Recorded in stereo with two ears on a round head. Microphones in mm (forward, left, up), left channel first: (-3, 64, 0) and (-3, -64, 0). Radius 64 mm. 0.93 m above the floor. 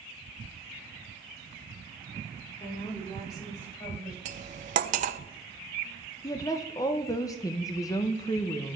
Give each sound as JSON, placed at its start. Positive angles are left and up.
{"t": 2.6, "sound": "a woman speaking", "side_deg": 25, "distance_m": 3.0}
{"t": 4.2, "sound": "cutlery clinking", "side_deg": -55, "distance_m": 0.5}
{"t": 6.2, "sound": "a woman speaking", "side_deg": 25, "distance_m": 0.5}